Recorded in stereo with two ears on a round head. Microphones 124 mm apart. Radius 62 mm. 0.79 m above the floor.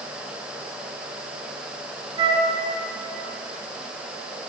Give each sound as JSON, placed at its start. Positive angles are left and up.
{"t": 2.2, "sound": "a flute", "side_deg": -35, "distance_m": 3.0}